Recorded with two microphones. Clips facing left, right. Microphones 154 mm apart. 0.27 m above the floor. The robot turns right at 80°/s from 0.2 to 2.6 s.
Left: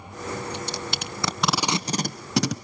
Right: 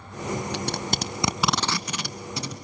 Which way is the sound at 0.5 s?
70° right (ahead or behind).